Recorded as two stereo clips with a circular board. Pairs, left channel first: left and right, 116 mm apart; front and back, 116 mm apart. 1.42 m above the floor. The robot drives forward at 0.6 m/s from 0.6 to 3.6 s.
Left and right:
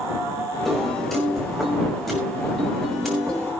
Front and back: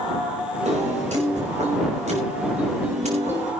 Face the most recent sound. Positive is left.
turn(degrees=180)